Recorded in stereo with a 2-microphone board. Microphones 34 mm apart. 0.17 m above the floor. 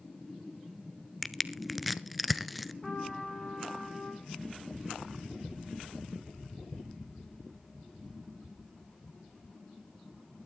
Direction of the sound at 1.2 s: Centre (ahead or behind).